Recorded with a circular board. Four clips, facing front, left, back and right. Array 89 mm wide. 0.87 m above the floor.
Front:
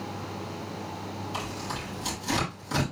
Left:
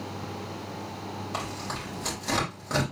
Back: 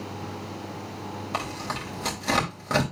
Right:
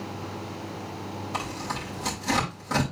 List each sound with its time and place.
1.3 s tearing paper: straight behind, 3.5 m